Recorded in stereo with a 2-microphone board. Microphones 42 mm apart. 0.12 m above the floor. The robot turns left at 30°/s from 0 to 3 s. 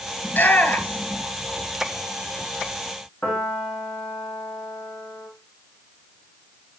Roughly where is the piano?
Left.